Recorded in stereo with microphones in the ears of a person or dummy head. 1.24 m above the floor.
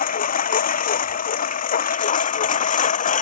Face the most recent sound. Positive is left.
turn(degrees=40)  # may be behind; listen again after turning